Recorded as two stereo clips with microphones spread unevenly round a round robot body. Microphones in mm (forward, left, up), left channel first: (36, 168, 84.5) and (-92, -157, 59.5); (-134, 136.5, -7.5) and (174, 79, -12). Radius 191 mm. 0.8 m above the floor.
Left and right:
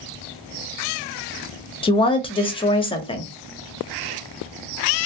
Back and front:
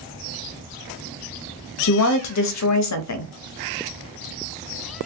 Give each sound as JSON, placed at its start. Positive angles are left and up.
{"t": 1.8, "sound": "a woman speaking", "azimuth_deg": 145, "distance_m": 0.6}